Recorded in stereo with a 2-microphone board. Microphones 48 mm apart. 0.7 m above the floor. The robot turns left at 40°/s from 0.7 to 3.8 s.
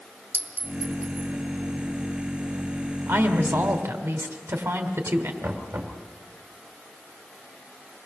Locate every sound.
0.3 s a clink: 50° right (ahead or behind), 1.6 m; by 1.3 s 70° right (ahead or behind), 1.6 m
3.1 s a woman speaking: 60° right (ahead or behind), 2.5 m; by 5.3 s 70° right (ahead or behind), 2.5 m
5.4 s knocking: 55° right (ahead or behind), 3.5 m